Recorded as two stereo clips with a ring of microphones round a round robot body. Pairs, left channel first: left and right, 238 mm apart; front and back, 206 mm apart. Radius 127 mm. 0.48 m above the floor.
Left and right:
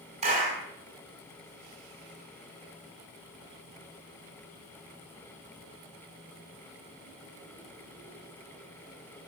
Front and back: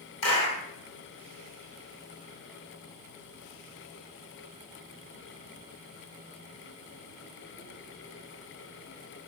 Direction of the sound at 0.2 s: 25° right.